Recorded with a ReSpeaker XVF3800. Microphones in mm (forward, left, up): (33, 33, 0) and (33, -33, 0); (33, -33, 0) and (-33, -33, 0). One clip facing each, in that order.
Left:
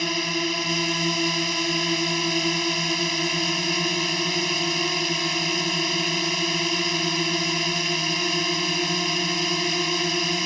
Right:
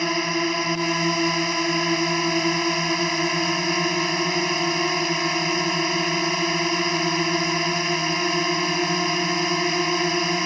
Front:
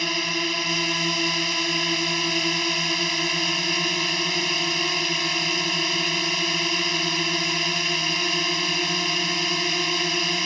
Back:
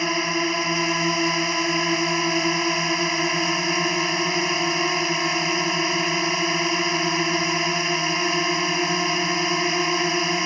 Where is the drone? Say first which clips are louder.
Right 3 dB, back 4 dB; 130° right.